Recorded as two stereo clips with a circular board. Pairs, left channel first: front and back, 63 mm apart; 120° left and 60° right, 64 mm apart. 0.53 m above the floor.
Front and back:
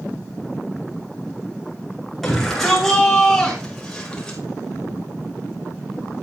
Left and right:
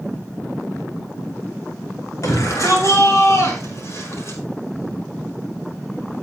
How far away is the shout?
About 6.5 m.